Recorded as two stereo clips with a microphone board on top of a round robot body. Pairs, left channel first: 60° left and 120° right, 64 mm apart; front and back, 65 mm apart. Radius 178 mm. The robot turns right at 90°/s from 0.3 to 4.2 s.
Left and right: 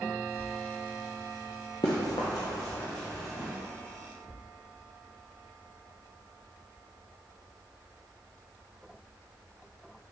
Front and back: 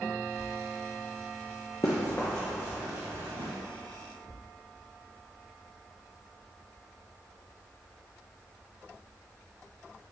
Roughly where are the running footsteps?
Ahead left.